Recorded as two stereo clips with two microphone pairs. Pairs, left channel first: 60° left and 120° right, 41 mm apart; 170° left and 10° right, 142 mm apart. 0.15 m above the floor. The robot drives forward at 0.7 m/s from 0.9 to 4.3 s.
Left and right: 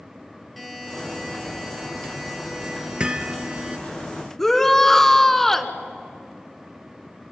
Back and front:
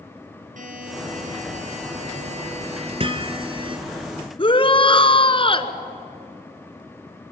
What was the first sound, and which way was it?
A buzzer, 30° right.